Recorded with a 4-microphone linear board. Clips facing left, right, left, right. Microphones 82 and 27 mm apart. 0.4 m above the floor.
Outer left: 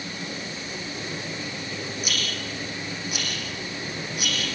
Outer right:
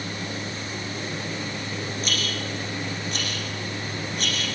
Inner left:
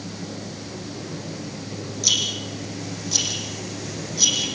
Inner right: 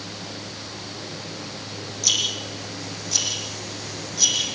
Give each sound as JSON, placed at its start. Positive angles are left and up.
{"t": 2.0, "sound": "a rattle", "side_deg": 10, "distance_m": 7.0}